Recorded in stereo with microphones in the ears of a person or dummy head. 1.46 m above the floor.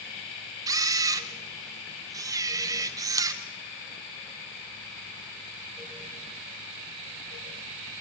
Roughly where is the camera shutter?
Centre.